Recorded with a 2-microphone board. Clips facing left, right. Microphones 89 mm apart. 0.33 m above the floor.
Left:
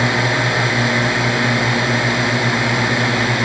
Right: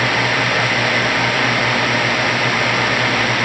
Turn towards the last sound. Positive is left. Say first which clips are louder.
# even
turn(degrees=25)  # may be behind; listen again after turning